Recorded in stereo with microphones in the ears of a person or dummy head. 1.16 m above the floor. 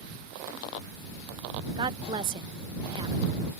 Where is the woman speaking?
20° right (ahead or behind).